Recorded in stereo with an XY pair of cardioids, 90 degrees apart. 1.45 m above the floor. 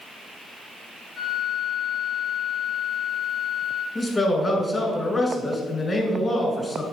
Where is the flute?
55° left, 1.0 m.